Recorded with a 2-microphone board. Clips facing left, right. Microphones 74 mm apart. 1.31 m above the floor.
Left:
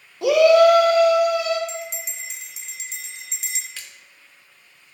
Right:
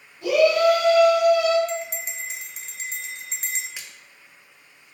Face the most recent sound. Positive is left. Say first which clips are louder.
# even
turn(degrees=-15)  # may be behind; listen again after turning